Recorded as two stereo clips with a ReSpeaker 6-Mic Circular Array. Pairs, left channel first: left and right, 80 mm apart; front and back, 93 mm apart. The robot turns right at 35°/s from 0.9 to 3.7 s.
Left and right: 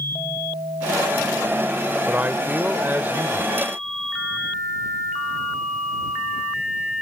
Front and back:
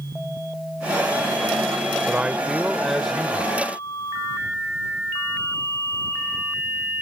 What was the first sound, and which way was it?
A man speaking, 125° right.